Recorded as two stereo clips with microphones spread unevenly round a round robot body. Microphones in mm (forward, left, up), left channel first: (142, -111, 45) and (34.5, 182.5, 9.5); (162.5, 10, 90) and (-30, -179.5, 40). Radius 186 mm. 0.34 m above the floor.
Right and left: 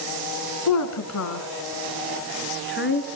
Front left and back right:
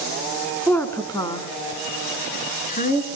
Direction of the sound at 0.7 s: 40° right.